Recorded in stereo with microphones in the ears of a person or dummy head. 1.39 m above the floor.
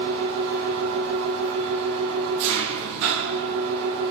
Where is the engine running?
65° right (ahead or behind), 1.4 m.